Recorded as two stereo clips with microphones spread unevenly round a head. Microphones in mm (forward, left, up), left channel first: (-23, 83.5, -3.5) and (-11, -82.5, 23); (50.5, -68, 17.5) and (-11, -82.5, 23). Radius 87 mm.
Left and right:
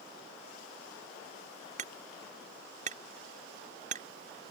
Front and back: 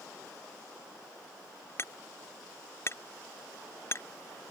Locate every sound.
1.8 s hammering: 35° right